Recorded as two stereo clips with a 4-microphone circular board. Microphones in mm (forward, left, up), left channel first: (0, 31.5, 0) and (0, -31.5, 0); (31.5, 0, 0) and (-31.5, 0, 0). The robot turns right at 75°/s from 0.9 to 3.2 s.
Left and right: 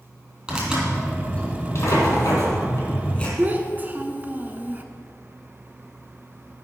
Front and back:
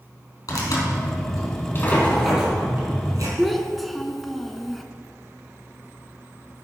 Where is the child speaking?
90° right, 0.7 m.